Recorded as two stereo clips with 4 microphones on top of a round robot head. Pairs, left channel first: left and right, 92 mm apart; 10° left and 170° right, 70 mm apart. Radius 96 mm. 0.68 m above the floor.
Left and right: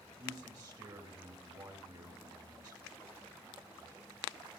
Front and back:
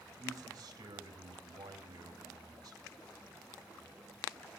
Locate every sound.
0.2 s a man speaking: 135° right, 2.5 m